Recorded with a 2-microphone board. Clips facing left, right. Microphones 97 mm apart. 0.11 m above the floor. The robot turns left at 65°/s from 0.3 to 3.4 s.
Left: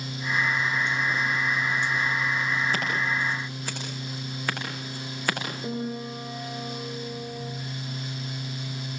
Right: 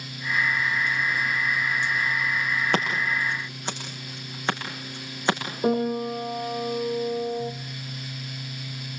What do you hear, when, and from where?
2.7 s scissors: 65° right (ahead or behind), 7.5 m; by 5.4 s 25° right (ahead or behind), 7.5 m
5.6 s a piano: 60° right (ahead or behind), 2 m